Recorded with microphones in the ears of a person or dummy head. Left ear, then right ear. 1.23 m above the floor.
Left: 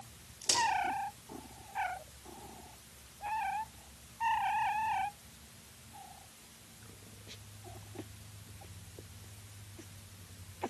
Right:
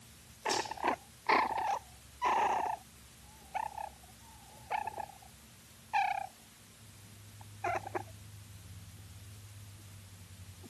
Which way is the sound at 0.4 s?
65° left (ahead or behind).